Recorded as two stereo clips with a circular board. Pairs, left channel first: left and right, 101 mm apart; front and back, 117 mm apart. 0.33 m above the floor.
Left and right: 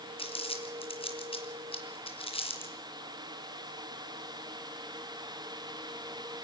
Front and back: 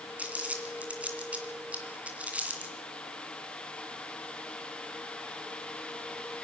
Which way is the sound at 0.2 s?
100° left.